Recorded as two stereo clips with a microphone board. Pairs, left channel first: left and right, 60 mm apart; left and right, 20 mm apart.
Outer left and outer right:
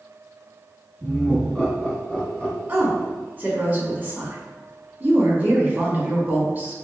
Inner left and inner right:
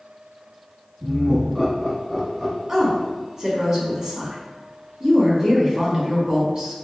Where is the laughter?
5° left (ahead or behind), 1.8 m; by 3.1 s 35° left (ahead or behind), 1.4 m.